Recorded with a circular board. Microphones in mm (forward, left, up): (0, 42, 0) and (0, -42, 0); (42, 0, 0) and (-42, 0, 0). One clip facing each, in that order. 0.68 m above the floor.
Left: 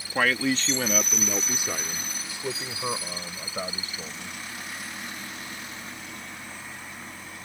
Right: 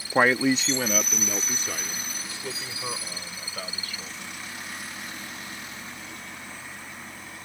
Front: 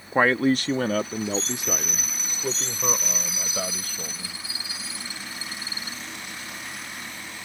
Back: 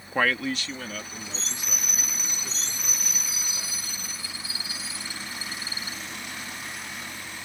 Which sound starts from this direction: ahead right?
A man speaking, at 0.1 s.